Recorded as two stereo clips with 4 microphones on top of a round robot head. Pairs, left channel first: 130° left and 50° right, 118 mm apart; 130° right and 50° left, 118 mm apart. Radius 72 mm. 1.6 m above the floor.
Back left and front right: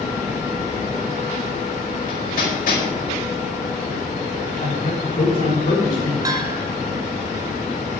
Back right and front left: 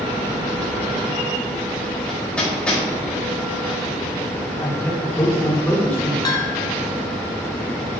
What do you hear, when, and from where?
2.1 s hammering: 145° left, 5 m
4.6 s a man speaking: 155° left, 5.5 m
6.2 s a bell: 95° right, 0.7 m